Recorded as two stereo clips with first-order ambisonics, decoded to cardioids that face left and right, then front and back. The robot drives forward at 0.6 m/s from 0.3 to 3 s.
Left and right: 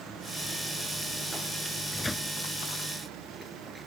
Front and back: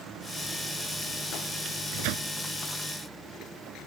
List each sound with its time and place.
1.6 s a microwave: 170° left